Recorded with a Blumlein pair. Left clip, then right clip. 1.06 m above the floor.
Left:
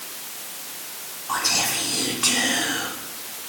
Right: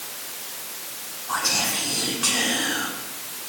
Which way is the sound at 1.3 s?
10° left.